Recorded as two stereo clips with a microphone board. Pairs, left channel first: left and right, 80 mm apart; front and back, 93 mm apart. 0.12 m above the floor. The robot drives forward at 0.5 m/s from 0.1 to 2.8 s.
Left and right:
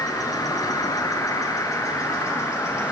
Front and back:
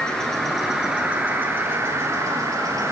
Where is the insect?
80° left, 1.4 m; by 2.9 s 140° left, 1.8 m.